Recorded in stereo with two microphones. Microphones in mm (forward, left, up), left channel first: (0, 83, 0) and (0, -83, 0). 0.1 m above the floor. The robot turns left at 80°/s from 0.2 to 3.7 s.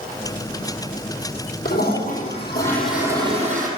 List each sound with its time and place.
1.6 s a toilet flushing: 95° left, 3 m; by 3.7 s 65° right, 3 m